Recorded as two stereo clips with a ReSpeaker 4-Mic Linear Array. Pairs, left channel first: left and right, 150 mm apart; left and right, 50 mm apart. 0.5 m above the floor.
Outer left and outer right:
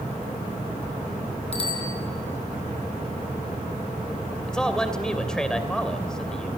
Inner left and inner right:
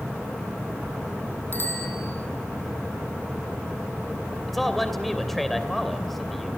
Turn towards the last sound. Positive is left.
turn(degrees=5)  # may be behind; listen again after turning